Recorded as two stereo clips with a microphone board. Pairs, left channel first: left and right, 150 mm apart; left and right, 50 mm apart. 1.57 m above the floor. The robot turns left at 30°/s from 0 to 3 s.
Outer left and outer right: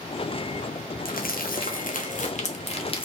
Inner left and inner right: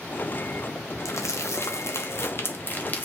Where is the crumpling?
75° left (ahead or behind), 0.6 m; by 3.0 s 35° left (ahead or behind), 0.6 m.